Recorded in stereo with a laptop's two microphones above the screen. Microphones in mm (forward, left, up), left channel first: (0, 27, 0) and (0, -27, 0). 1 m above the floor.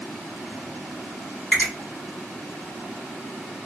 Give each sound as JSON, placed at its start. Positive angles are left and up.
{"t": 1.5, "sound": "a finger snap", "side_deg": 25, "distance_m": 1.3}